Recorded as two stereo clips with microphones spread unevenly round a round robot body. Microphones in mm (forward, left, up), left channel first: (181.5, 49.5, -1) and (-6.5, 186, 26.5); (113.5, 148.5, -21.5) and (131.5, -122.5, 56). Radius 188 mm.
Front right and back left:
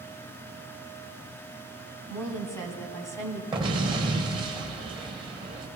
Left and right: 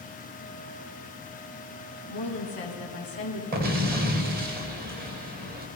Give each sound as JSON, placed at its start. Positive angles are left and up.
{"t": 2.1, "sound": "a woman speaking", "azimuth_deg": 40, "distance_m": 2.5}
{"t": 3.5, "sound": "an explosion", "azimuth_deg": -145, "distance_m": 1.1}